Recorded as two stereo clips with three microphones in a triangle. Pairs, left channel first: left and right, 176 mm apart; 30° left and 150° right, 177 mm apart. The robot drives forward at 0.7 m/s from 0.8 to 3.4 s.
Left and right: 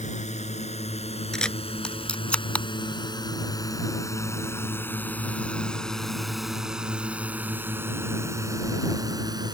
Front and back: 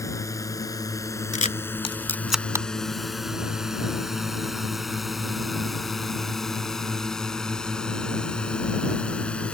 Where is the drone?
95° left; by 9.5 s 50° right.